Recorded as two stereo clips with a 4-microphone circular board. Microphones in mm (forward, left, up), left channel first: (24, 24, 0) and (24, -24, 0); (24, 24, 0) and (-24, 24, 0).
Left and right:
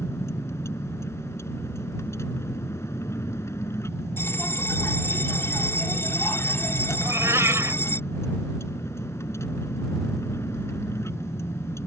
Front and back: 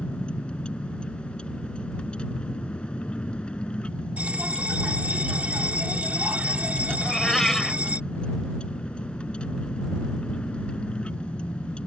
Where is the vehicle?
70° left.